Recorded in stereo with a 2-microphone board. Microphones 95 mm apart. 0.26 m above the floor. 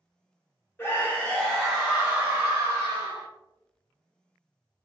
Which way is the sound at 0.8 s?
25° left (ahead or behind).